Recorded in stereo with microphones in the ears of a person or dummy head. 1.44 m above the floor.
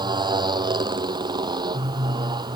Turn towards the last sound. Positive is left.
turn(degrees=-25)  # may be behind; listen again after turning